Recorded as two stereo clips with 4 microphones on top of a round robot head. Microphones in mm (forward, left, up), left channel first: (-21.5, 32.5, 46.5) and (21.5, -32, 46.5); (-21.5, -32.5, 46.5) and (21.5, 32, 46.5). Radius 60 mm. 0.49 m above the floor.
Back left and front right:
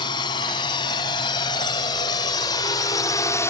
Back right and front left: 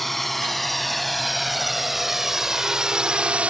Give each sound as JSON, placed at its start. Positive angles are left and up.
{"t": 0.0, "sound": "a drone", "azimuth_deg": 150}